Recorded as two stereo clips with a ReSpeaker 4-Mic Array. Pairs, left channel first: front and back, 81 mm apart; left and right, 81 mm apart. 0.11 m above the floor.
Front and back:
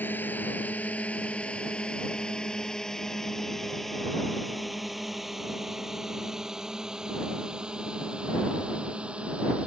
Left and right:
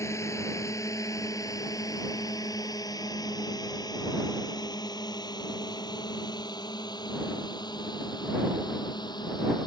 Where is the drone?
60° left; by 9.7 s 105° left.